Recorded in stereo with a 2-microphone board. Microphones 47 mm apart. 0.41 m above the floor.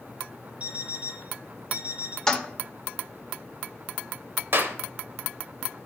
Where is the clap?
60° right (ahead or behind), 1.0 m.